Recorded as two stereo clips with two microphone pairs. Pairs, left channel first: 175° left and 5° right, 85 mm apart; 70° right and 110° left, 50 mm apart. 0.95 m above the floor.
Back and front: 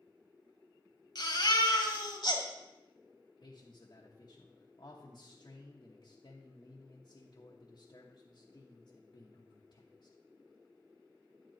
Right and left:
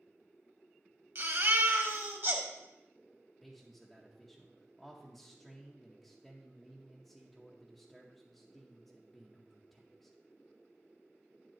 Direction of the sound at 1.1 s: 145° left.